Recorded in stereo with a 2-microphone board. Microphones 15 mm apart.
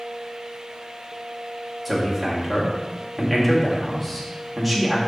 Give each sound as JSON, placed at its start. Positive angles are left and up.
{"t": 1.9, "sound": "a man speaking", "side_deg": 15, "distance_m": 1.9}